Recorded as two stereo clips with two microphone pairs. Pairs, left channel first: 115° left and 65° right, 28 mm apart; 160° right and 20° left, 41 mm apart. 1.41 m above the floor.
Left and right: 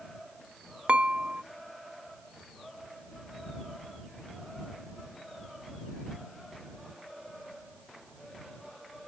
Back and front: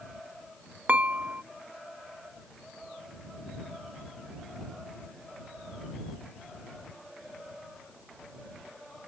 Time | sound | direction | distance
0.9 | dishes clattering | 25° right | ?